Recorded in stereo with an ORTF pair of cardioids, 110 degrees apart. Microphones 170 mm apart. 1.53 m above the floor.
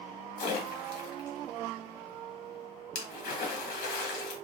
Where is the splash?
70° left, 1.1 m.